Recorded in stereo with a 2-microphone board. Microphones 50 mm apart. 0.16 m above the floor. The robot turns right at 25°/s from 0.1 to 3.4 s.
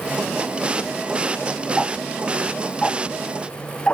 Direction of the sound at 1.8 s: 20° right (ahead or behind).